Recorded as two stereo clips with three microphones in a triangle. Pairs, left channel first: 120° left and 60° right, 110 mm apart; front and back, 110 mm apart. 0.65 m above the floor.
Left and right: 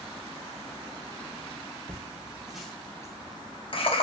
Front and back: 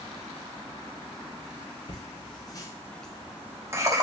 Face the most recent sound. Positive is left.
turn(degrees=125)